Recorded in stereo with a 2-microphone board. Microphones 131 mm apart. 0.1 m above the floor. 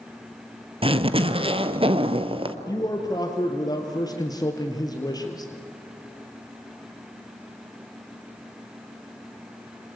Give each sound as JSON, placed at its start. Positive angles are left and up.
{"t": 0.8, "sound": "a zipper", "side_deg": -45, "distance_m": 1.1}
{"t": 2.7, "sound": "a man speaking", "side_deg": 30, "distance_m": 2.5}